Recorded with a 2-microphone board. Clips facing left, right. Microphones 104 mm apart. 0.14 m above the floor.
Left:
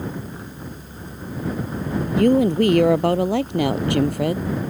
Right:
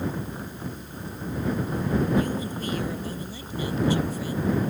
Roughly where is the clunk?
No clunk in this recording.